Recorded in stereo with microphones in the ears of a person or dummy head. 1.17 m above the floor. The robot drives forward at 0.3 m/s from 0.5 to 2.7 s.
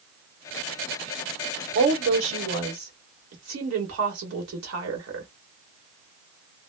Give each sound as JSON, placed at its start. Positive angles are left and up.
{"t": 1.8, "sound": "a woman speaking", "side_deg": -85, "distance_m": 1.0}